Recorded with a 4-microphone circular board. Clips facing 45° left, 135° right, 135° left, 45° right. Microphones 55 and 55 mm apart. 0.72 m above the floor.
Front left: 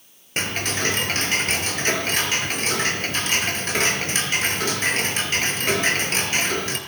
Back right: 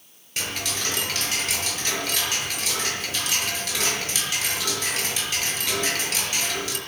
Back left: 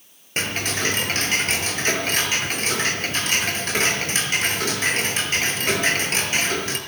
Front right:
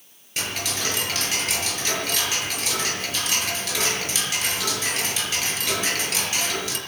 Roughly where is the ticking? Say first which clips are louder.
Front left 5 dB, back left 4 dB; left.